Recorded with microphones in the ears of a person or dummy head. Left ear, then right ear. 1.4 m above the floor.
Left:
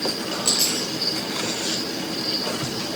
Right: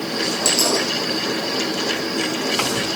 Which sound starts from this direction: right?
A dropped coin, at 0.5 s.